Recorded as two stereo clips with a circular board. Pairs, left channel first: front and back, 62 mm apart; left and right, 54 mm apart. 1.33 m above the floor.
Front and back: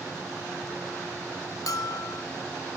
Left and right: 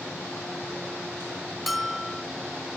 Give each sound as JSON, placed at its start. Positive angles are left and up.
{"t": 1.7, "sound": "a bell", "azimuth_deg": 0, "distance_m": 1.0}